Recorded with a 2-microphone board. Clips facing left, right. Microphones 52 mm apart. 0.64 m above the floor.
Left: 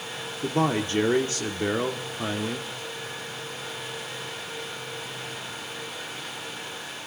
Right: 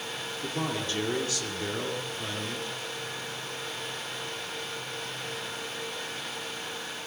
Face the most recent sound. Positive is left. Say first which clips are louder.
# left 8 dB
turn(degrees=35)  # may be behind; listen again after turning